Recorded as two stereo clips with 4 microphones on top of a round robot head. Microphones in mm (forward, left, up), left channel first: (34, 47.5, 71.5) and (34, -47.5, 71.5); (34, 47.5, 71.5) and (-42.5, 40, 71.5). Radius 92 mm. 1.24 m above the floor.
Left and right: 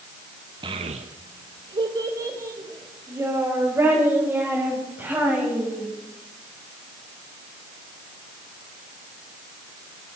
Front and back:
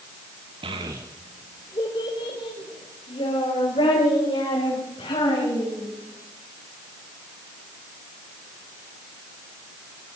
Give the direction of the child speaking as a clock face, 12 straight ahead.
5 o'clock.